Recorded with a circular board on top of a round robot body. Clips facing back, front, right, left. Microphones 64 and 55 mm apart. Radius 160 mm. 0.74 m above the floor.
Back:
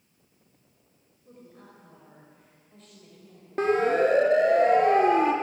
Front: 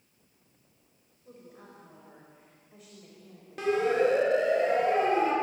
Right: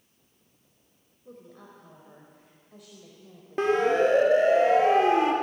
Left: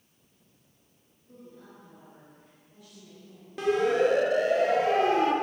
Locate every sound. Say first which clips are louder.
1.2 s a woman speaking: even, right 2 dB; 80° right, 5 m
3.6 s a siren: back 3 dB, right 2 dB; 140° right, 3 m; by 5.3 s 155° right, 4 m